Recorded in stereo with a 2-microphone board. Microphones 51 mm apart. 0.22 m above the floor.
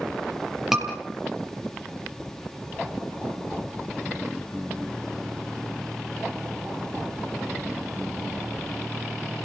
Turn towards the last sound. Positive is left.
turn(degrees=-5)  # may be behind; listen again after turning